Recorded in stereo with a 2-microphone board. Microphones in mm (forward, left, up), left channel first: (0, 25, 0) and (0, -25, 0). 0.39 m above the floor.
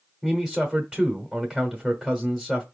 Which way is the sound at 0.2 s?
15° right (ahead or behind).